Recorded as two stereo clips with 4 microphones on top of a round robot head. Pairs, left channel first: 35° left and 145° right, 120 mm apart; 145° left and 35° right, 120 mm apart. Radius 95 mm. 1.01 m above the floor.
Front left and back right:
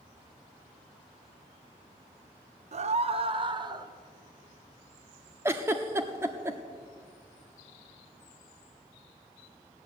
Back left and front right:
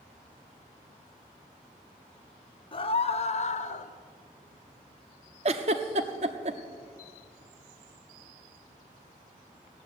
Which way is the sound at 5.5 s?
75° right.